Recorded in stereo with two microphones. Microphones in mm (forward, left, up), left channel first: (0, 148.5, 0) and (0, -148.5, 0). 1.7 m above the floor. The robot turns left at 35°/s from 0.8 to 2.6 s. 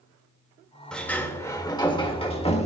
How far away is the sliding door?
About 1.4 m.